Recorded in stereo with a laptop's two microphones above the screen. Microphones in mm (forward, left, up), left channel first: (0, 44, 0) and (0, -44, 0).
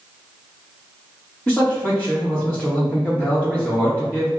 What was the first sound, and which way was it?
A man speaking, 5° left (ahead or behind).